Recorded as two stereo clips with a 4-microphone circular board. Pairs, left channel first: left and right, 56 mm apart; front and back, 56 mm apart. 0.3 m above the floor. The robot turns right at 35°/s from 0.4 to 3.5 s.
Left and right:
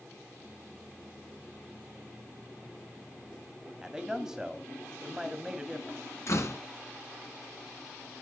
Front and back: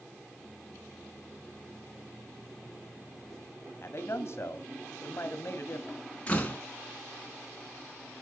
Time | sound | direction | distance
3.8 | a man speaking | 15° right | 1.7 m
6.3 | a door slam | 65° left | 3 m